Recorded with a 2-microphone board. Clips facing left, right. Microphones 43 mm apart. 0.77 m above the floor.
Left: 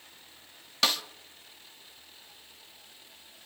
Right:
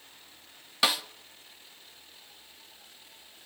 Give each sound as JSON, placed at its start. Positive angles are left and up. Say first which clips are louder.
{"t": 0.8, "sound": "a snare drum", "louder": "right 1 dB", "side_deg": -10, "distance_m": 0.9}